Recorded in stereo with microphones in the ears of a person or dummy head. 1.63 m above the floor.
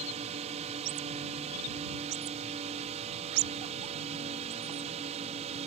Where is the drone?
30° right (ahead or behind).